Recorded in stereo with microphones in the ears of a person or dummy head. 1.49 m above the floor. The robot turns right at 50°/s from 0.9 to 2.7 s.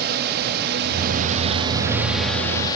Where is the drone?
55° right (ahead or behind); by 2.8 s 20° left (ahead or behind).